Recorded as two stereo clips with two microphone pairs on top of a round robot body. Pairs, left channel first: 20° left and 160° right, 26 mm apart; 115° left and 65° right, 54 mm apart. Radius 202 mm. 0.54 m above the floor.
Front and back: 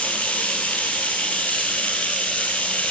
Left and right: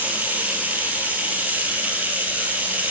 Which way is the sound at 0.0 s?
5° right.